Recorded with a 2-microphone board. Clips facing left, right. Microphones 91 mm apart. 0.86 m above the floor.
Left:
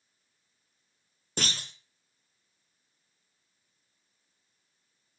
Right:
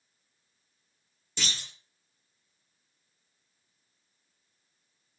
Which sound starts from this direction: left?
A clunk, at 1.4 s.